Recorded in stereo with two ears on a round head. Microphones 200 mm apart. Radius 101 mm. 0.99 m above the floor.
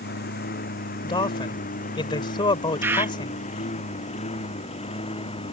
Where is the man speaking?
25° left (ahead or behind).